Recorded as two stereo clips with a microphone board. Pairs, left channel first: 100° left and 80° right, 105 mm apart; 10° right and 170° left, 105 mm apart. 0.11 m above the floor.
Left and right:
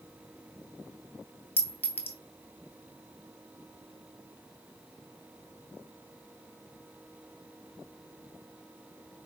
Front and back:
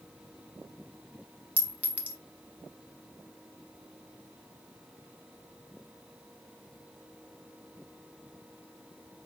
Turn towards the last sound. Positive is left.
turn(degrees=115)